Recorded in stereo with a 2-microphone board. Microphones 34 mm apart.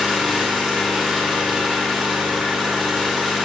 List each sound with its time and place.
0.0 s an engine running: 10° right (ahead or behind), 3.5 m